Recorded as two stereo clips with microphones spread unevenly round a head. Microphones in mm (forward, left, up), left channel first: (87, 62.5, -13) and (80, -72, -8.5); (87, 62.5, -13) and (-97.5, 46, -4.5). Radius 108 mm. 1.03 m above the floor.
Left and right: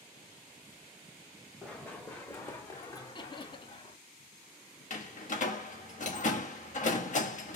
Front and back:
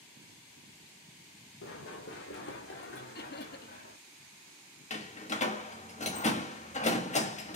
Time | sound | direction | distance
1.6 | running footsteps | straight ahead | 2.5 m
3.1 | laughter | 35° left | 1.4 m
4.9 | a door slam | 60° left | 1.4 m